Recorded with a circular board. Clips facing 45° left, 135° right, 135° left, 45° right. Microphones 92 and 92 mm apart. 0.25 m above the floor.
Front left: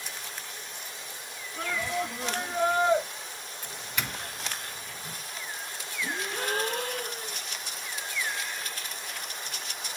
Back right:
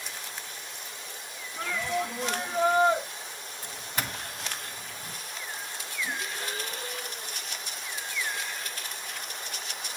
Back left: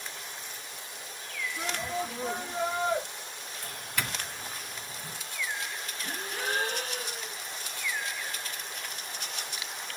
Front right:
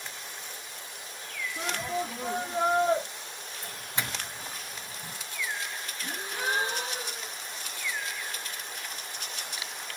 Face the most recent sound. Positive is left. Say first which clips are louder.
# front left 3 dB, front right 2 dB
turn(degrees=25)